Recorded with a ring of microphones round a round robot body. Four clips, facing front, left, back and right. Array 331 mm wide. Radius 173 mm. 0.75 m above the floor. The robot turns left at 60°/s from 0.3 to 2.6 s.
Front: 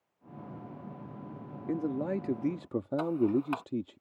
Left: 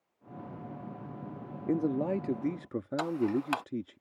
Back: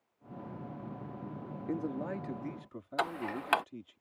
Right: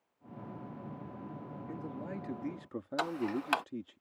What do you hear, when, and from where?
1.7 s a man speaking: 80° left; by 4.0 s 25° left
3.0 s ticking: 175° right